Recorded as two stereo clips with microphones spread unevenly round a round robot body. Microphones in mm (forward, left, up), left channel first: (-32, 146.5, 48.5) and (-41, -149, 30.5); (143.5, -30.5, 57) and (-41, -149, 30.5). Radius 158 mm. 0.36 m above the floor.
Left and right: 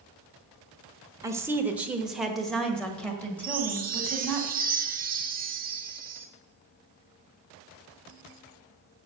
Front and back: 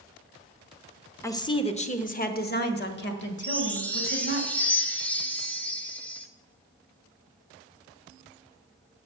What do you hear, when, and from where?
1.2 s a woman speaking: 45° right, 1.0 m; by 4.4 s 5° left, 2.5 m
3.4 s a chime: 55° right, 1.5 m